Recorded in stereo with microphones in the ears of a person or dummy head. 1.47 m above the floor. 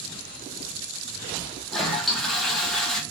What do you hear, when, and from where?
1.7 s a toilet flushing: 5° left (ahead or behind), 1.0 m